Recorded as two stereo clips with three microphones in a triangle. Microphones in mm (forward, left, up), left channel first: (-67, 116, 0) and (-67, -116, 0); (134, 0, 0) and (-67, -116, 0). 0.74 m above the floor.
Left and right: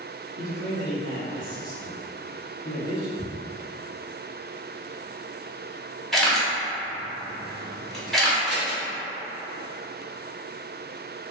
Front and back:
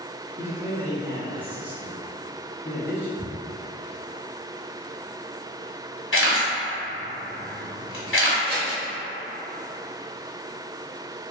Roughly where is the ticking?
Ahead left.